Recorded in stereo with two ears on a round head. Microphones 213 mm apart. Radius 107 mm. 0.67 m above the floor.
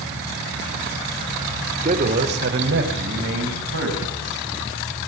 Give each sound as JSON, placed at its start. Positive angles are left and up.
{"t": 1.8, "sound": "a man speaking", "side_deg": -30, "distance_m": 1.5}